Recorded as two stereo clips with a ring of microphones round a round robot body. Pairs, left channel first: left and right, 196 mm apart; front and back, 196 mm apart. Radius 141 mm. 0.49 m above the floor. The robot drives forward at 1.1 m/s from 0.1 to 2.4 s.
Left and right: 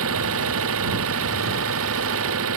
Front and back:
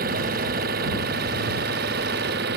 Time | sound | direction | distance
0.0 | an engine running | 120° right | ?